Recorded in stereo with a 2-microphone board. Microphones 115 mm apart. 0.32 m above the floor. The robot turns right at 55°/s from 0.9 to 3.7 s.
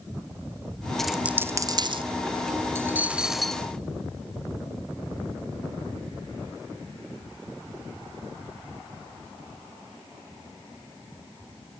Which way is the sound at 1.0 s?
5° left (ahead or behind).